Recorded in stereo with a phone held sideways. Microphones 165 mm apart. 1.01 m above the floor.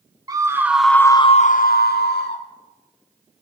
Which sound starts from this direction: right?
A scream, at 0.3 s.